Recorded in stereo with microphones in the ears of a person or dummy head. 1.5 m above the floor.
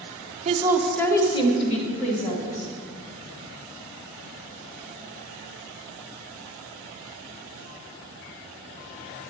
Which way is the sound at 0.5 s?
35° right (ahead or behind).